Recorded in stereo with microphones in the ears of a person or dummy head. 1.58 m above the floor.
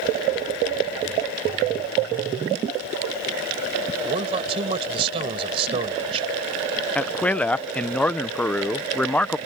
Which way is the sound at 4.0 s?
35° right (ahead or behind).